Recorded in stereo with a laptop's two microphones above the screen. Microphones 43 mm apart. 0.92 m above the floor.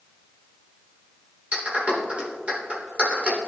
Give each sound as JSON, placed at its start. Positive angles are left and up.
{"t": 1.5, "sound": "a clap", "side_deg": -30, "distance_m": 1.9}